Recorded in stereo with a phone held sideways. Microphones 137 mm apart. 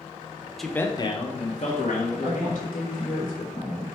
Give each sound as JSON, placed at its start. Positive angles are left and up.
{"t": 0.6, "sound": "a man speaking", "side_deg": 0, "distance_m": 0.8}
{"t": 2.2, "sound": "a woman speaking", "side_deg": 80, "distance_m": 3.5}